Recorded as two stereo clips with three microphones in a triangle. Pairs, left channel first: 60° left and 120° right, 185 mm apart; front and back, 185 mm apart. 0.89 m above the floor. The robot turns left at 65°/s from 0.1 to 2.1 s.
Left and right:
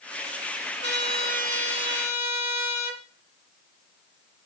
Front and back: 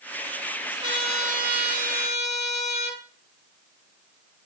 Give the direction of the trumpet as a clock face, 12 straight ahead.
4 o'clock.